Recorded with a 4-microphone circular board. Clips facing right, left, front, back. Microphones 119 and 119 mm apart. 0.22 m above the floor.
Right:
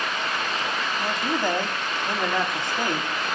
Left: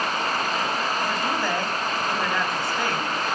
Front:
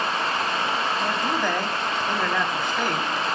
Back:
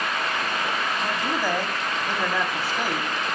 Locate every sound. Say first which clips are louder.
1.0 s a man speaking: even, front 1 dB; 105° right, 1.1 m